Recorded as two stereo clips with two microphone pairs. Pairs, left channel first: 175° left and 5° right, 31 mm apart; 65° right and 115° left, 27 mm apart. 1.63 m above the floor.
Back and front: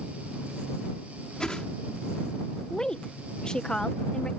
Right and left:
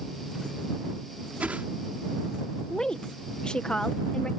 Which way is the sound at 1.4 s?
110° left.